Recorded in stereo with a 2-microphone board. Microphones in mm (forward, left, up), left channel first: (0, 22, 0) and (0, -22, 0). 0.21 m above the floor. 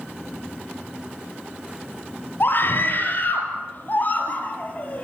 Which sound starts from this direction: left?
A scream, at 2.4 s.